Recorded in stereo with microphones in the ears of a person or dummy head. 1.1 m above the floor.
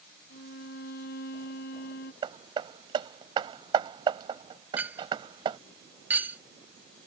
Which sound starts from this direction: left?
A violin, at 0.3 s.